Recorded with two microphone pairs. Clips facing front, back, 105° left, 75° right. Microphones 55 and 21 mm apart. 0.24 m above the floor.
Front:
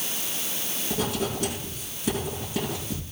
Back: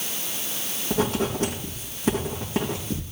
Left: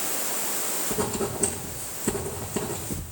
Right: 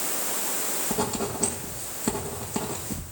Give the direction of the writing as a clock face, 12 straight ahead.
4 o'clock.